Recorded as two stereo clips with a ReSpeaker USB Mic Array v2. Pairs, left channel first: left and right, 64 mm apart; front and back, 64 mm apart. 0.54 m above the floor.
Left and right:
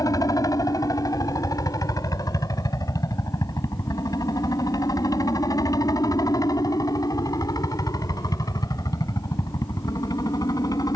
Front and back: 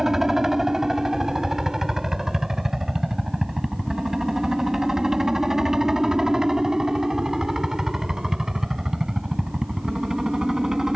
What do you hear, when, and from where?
0.0 s a helicopter: 95° left; by 11.0 s 100° left